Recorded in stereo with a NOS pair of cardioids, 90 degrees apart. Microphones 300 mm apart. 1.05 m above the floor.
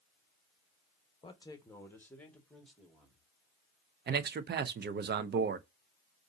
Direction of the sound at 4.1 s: 35° right.